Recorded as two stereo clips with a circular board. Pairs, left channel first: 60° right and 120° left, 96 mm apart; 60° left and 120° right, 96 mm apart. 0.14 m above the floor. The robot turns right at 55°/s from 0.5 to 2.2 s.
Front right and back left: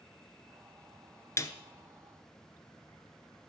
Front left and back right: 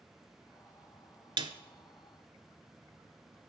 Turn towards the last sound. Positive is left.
turn(degrees=-65)